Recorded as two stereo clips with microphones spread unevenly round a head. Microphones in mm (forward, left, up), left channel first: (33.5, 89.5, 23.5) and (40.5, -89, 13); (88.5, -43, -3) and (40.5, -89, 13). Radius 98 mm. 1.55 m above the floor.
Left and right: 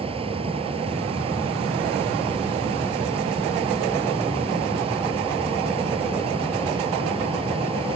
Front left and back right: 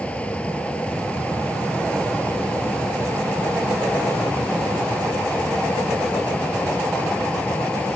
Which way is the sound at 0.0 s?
30° right.